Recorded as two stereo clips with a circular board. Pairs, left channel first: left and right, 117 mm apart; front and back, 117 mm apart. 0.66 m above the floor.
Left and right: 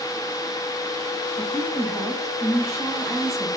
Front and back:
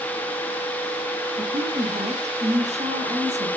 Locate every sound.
1.4 s a woman speaking: straight behind, 4 m